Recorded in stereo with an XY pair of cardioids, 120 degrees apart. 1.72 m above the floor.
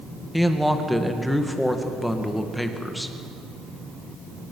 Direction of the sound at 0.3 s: 5° left.